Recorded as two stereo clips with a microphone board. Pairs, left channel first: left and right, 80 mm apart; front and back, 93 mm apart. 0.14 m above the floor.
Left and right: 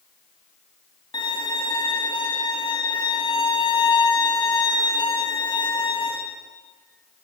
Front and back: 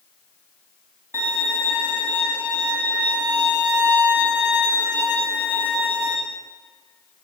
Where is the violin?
125° left, 6.5 m.